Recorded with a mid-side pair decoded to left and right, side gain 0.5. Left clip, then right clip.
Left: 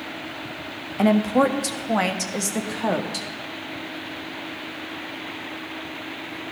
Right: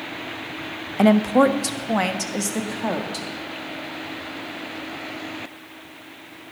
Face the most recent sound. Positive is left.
turn(degrees=20)